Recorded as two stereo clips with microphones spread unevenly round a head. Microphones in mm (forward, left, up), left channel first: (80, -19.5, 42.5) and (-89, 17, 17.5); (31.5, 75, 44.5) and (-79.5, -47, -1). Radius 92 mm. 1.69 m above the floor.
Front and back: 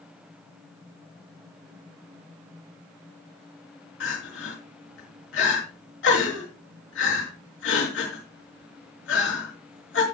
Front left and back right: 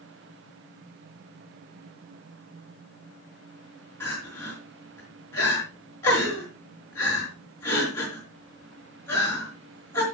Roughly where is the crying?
Ahead right.